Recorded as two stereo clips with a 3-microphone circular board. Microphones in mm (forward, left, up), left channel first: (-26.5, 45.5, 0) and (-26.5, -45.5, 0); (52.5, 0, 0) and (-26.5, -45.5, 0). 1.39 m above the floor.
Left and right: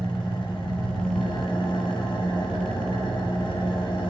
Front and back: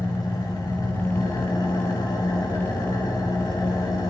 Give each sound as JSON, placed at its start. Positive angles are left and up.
{"t": 0.0, "sound": "an engine running", "azimuth_deg": 75, "distance_m": 3.0}